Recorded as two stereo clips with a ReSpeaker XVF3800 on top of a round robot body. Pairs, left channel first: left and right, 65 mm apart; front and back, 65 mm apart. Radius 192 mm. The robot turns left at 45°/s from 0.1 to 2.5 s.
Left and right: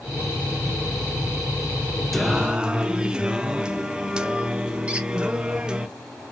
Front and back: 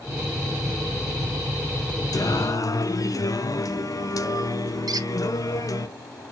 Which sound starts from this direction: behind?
A squeak, at 4.9 s.